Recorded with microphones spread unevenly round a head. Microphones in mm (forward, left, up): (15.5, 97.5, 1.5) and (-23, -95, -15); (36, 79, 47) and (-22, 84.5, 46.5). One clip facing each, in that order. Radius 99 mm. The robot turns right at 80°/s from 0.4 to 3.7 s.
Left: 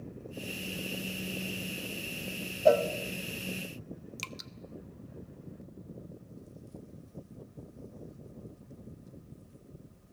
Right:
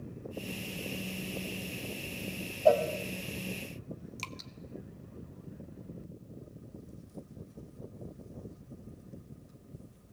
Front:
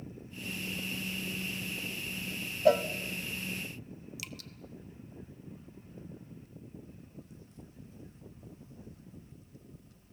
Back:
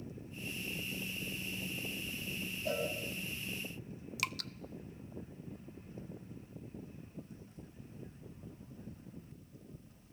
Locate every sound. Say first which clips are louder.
2.6 s a cowbell: left 1 dB, front 13 dB; 10° left, 1.3 m; by 2.8 s 25° left, 1.3 m
4.2 s dripping: even, back 10 dB; 155° left, 0.7 m